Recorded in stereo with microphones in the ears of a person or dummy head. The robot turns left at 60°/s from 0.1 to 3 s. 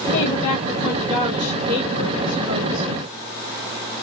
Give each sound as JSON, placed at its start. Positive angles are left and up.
{"t": 0.1, "sound": "a woman speaking", "azimuth_deg": 75, "distance_m": 1.2}